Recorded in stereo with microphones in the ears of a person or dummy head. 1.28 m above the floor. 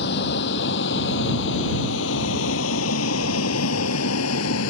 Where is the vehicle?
65° left (ahead or behind); by 4.7 s 70° left (ahead or behind).